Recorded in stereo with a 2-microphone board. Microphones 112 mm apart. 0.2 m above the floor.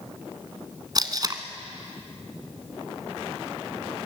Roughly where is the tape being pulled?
Right.